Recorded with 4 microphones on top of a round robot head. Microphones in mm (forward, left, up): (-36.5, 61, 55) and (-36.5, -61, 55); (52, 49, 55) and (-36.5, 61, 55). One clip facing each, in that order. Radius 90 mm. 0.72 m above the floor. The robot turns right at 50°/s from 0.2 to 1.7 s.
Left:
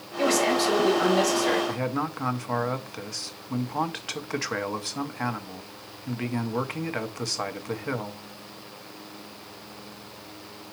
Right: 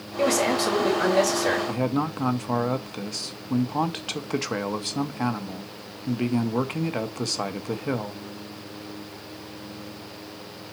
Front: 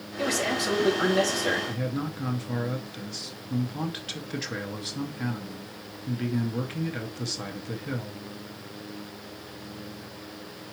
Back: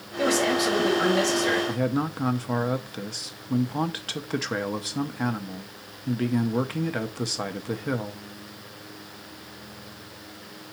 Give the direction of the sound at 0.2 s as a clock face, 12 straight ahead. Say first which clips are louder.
Right 1 dB, back 5 dB; 4 o'clock.